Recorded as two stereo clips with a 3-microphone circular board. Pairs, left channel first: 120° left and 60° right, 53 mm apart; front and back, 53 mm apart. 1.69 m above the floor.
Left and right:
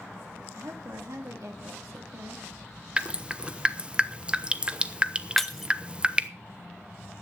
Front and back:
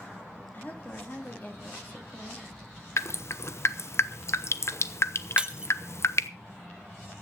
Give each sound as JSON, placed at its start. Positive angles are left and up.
{"t": 0.5, "sound": "a woman speaking", "azimuth_deg": -55, "distance_m": 3.0}
{"t": 3.0, "sound": "dripping", "azimuth_deg": 10, "distance_m": 0.8}
{"t": 5.4, "sound": "breaking glass", "azimuth_deg": -165, "distance_m": 0.9}